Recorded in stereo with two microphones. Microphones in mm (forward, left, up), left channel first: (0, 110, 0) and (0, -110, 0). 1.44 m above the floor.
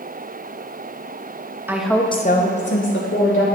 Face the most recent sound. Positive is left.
turn(degrees=65)  # may be behind; listen again after turning